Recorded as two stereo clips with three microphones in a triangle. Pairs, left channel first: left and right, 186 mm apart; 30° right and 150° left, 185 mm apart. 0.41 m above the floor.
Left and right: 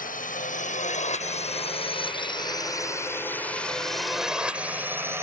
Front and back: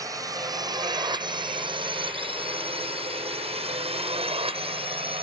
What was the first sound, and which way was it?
A drone, 85° left.